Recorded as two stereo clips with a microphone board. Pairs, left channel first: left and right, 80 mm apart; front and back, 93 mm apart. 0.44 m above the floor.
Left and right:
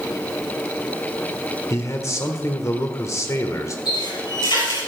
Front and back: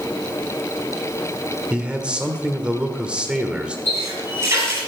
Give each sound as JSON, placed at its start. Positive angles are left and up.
{"t": 1.7, "sound": "a man speaking", "azimuth_deg": 105, "distance_m": 1.4}
{"t": 3.9, "sound": "a running tap", "azimuth_deg": 115, "distance_m": 6.0}